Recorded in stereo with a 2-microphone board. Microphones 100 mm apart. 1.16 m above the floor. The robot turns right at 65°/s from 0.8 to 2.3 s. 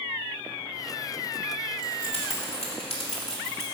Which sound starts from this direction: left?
Keys jangling, at 1.8 s.